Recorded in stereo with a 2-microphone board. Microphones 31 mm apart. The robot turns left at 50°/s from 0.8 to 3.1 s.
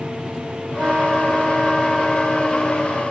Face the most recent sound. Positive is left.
turn(degrees=130)